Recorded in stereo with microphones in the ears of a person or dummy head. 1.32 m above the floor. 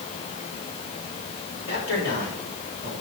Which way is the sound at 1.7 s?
70° left (ahead or behind).